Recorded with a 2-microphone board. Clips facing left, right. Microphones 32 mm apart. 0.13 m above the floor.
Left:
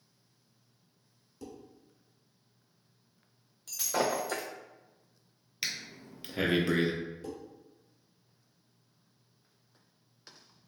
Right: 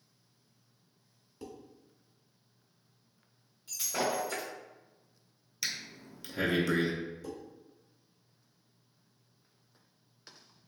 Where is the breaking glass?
80° left, 0.8 m.